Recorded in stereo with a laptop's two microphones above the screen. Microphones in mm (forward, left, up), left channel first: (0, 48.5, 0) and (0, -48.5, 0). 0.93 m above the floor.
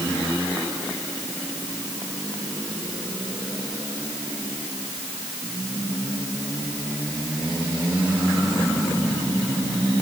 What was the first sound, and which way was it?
Only background noise.